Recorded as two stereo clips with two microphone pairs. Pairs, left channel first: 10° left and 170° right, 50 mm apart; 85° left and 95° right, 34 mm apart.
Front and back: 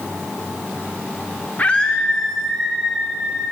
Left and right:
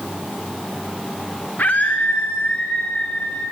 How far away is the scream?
About 1.4 m.